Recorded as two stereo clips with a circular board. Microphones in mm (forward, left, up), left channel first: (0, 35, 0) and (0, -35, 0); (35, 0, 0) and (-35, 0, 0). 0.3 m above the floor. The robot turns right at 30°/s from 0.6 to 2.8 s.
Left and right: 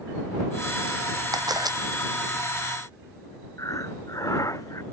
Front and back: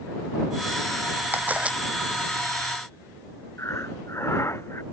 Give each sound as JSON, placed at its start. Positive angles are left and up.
{"t": 1.3, "sound": "a camera shutter", "azimuth_deg": -120}
{"t": 3.6, "sound": "breathing", "azimuth_deg": 50}